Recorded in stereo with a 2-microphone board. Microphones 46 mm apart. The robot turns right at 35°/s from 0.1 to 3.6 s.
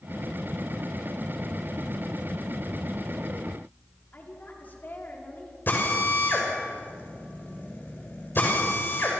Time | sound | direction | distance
4.1 | a woman speaking | 45° left (ahead or behind) | 5.5 m
5.7 | a drill | 45° left (ahead or behind) | 6 m